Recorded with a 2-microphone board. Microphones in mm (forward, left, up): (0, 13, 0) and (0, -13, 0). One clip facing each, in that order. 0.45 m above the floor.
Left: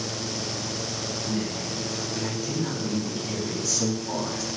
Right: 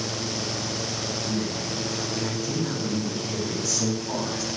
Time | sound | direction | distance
1.3 | a woman speaking | 40° left (ahead or behind) | 4 m